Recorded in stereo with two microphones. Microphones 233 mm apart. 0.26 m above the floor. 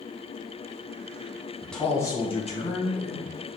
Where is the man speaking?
Centre (ahead or behind), 2 m; by 3.3 s 50° left (ahead or behind), 2.5 m.